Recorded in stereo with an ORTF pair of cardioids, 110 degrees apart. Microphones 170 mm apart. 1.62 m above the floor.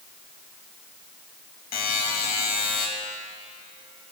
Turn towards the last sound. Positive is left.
turn(degrees=60)